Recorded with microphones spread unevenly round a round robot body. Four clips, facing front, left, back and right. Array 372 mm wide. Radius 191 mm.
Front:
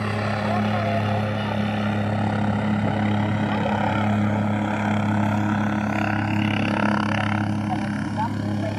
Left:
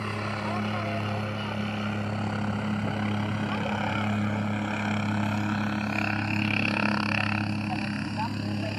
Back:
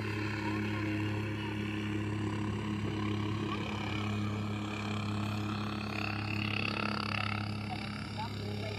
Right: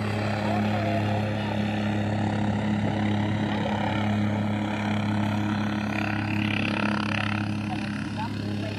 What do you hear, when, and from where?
0.0 s a helicopter: 10° right; by 8.8 s 10° left